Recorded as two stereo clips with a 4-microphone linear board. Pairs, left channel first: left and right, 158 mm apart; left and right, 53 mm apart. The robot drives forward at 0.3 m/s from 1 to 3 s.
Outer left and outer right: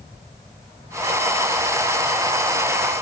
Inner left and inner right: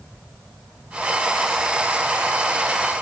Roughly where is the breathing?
No breathing in this recording.